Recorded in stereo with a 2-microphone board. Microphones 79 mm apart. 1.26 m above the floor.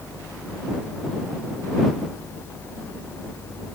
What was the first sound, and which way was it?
Only background noise.